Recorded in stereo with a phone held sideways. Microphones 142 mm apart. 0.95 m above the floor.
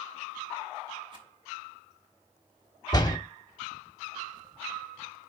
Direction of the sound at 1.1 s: 35° right (ahead or behind).